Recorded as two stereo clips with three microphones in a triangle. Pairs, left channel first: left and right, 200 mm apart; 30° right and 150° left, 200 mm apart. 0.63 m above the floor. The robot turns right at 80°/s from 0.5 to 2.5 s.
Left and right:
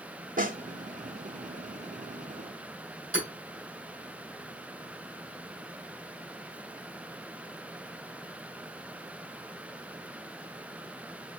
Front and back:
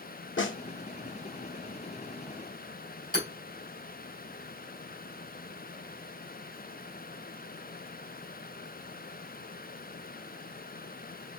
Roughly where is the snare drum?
Ahead right.